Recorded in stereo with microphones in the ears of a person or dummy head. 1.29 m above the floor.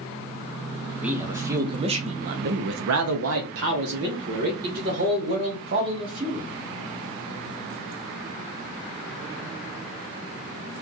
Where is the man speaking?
10° right (ahead or behind), 1.0 m; by 6.5 s 45° right (ahead or behind), 2 m.